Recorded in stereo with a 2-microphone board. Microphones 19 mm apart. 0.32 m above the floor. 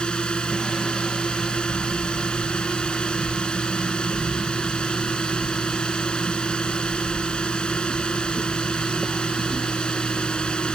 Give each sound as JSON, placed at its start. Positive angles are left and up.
{"t": 0.0, "sound": "a drone", "side_deg": 60}